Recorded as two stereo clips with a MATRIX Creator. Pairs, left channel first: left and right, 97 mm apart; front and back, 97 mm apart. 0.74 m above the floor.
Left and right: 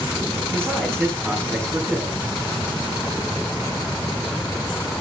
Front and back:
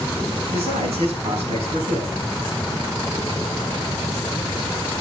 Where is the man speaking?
175° left, 6 m.